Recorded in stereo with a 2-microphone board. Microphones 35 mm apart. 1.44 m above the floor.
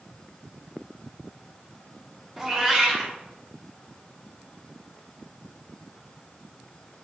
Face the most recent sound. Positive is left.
turn(degrees=-10)  # may be behind; listen again after turning